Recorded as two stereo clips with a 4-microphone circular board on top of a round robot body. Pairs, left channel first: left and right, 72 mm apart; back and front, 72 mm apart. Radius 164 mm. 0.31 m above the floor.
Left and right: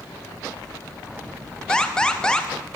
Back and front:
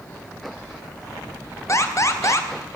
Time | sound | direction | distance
1.7 | an alarm | 165° left | 2.5 m